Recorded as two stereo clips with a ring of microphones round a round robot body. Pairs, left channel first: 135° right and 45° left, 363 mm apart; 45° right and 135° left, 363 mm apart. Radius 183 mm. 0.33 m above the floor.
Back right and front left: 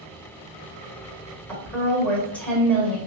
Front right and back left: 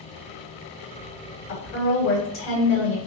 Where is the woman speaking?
50° right, 1.5 m.